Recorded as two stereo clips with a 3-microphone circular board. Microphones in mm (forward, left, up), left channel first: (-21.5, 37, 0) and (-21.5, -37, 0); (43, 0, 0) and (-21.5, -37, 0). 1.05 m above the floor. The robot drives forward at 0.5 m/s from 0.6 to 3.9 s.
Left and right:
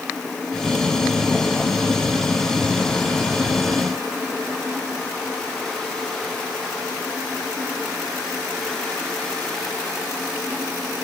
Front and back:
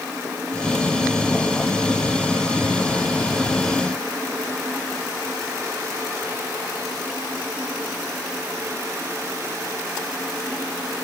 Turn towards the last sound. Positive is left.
No sound to turn to.